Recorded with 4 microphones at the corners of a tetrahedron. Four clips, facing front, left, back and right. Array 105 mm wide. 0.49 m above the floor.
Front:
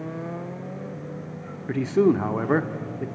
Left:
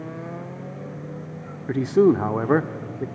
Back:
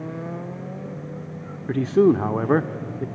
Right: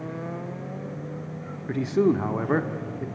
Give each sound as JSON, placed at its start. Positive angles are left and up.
{"t": 1.7, "sound": "a man speaking", "azimuth_deg": 115, "distance_m": 0.8}